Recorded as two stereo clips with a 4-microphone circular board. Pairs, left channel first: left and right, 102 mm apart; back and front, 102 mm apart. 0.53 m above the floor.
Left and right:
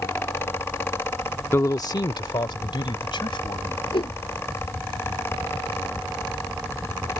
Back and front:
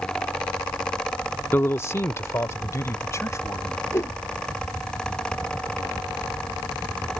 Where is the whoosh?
120° left.